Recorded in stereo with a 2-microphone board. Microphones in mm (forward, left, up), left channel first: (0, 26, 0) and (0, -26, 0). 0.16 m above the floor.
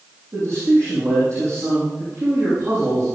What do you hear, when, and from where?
0.3 s a man speaking: 55° right (ahead or behind), 8.5 m